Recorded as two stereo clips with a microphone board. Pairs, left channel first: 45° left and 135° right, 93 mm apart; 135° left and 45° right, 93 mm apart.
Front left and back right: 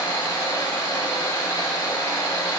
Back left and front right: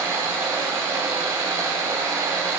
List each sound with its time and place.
0.0 s running water: 10° left, 2.0 m